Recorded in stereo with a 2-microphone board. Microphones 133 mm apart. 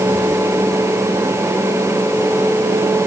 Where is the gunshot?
I don't hear a gunshot.